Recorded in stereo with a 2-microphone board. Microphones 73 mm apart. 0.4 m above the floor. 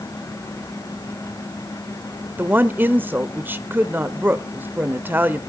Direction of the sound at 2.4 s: 30° right (ahead or behind).